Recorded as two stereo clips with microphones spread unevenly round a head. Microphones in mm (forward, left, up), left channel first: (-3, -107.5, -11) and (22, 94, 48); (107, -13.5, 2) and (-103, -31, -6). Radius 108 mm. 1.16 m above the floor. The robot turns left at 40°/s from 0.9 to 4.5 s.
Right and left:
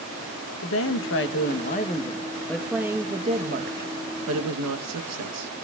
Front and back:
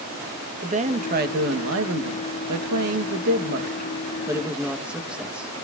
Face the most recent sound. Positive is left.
turn(degrees=100)